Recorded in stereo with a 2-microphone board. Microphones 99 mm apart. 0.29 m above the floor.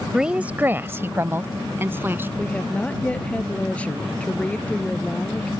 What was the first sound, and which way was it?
A woman speaking, 5° right (ahead or behind).